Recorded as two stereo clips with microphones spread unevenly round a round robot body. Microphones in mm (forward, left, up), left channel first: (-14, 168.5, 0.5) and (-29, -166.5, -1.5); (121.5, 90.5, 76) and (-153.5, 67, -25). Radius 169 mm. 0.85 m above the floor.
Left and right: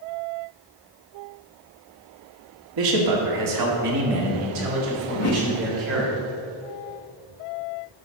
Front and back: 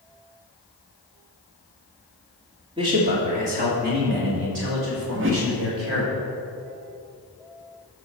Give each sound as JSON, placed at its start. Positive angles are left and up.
{"t": 2.8, "sound": "a man speaking", "azimuth_deg": -110, "distance_m": 2.0}
{"t": 5.1, "sound": "a whoosh", "azimuth_deg": 135, "distance_m": 1.1}